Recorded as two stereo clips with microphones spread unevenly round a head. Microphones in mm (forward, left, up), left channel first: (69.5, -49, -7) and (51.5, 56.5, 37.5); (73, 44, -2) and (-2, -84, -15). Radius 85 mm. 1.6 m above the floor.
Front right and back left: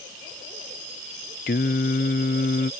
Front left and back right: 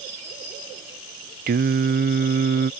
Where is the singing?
105° right.